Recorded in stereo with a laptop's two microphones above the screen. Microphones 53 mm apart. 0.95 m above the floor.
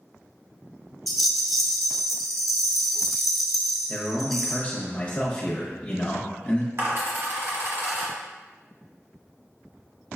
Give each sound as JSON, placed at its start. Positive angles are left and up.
{"t": 1.1, "sound": "a rattle", "side_deg": 0, "distance_m": 0.9}
{"t": 3.9, "sound": "a man speaking", "side_deg": 35, "distance_m": 0.7}
{"t": 6.8, "sound": "a dropped coin", "side_deg": -60, "distance_m": 1.1}